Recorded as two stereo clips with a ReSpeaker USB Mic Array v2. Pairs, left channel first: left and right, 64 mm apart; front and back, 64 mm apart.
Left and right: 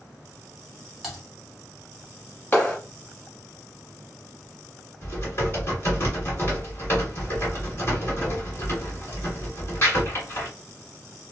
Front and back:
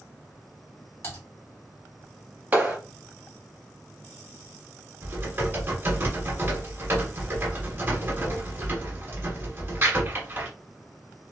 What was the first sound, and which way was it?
Typing on a keyboard, 5° right.